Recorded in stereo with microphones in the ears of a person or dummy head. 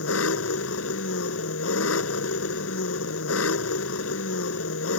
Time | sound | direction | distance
0.0 | an engine running | 85° left | ?